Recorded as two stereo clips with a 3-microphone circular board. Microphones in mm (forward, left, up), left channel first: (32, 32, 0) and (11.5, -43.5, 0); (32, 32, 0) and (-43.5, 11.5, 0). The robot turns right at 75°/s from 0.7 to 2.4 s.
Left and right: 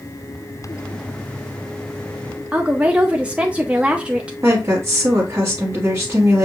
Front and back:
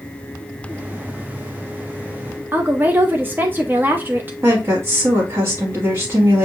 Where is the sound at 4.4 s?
140° right, 1.2 m.